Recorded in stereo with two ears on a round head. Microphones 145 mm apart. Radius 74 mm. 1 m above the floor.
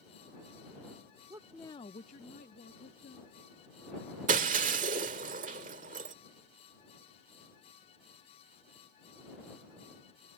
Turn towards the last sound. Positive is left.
turn(degrees=-50)  # may be behind; listen again after turning